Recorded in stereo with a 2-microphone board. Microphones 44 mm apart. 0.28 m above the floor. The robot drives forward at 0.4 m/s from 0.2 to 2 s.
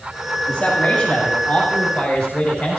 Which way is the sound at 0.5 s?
25° left (ahead or behind).